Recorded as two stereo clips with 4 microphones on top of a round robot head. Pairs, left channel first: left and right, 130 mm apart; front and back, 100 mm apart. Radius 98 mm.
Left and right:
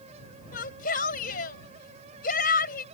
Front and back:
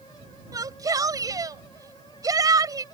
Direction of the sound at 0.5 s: 125° left.